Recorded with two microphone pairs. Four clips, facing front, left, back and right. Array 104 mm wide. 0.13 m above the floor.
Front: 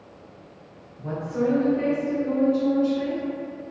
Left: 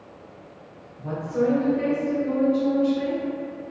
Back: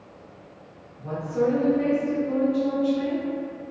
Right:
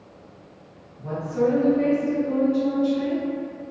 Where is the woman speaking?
5° right, 1.4 m; by 3.2 s 120° left, 1.2 m.